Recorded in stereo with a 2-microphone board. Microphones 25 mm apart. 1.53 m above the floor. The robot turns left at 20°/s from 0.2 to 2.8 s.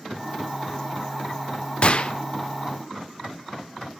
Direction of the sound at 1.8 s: 50° left (ahead or behind).